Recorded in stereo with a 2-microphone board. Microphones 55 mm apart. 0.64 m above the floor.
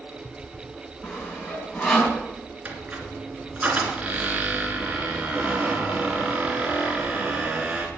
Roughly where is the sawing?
Left.